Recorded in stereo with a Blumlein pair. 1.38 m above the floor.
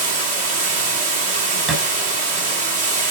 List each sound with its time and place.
0.0 s running water: 55° right, 2 m
1.7 s a thud: 30° right, 3 m